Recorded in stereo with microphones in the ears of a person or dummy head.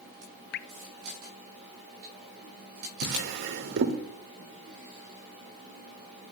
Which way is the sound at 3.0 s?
60° right (ahead or behind).